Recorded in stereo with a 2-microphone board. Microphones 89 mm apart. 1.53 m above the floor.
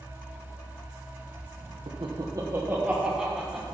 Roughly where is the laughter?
Right.